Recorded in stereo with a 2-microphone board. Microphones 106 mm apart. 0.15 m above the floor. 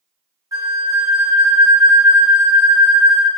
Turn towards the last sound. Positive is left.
turn(degrees=-35)  # may be behind; listen again after turning